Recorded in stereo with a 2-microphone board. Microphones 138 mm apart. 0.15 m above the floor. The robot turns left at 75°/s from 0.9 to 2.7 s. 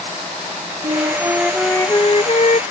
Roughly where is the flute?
Behind right.